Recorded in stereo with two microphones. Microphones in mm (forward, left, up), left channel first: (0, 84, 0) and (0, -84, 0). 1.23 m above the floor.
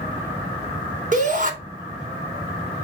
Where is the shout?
50° right (ahead or behind), 3.5 m.